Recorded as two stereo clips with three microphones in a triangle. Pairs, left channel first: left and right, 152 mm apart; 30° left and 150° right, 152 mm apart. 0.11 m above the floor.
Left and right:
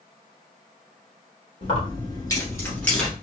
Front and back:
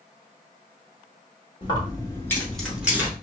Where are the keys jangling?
65° left, 1.4 m; by 3.1 s 170° left, 1.1 m.